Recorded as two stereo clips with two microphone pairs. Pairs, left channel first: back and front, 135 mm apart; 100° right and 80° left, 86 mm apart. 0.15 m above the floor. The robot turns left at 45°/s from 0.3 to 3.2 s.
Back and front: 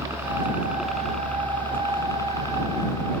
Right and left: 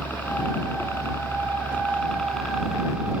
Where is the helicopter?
55° right; by 3.2 s 135° left.